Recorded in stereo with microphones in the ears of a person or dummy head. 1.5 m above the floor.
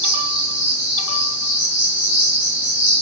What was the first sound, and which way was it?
An insect, 50° left (ahead or behind).